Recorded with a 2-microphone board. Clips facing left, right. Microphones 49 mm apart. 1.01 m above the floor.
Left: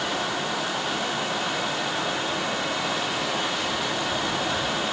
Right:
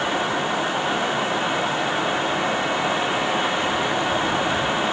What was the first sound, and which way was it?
Only background noise.